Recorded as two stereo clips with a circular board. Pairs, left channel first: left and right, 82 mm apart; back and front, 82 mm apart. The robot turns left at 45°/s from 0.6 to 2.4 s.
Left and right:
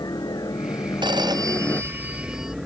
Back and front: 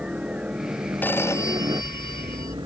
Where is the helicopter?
75° left; by 2.7 s 5° right.